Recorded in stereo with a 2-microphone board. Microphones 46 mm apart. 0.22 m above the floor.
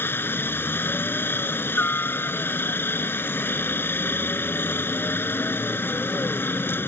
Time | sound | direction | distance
0.0 | a helicopter | 55° left (ahead or behind) | ?